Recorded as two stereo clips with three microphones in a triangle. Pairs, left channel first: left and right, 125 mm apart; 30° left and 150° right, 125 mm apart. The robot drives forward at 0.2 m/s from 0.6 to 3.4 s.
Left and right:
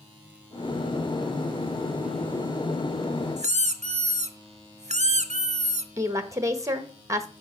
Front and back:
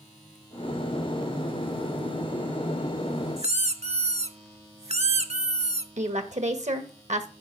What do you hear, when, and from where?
3.4 s a squeak: 115° right, 0.7 m; by 5.9 s 120° right, 0.7 m
6.0 s a woman speaking: 155° right, 1.4 m